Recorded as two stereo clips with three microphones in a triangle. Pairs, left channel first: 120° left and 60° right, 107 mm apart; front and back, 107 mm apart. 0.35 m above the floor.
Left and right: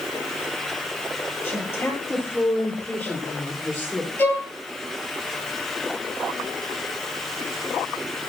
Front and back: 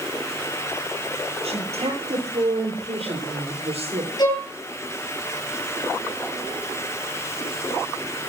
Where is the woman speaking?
170° right, 9.5 m; by 4.1 s 165° right, 7.5 m.